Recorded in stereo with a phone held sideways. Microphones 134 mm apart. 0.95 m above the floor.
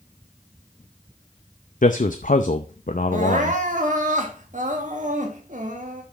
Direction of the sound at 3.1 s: 60° right (ahead or behind).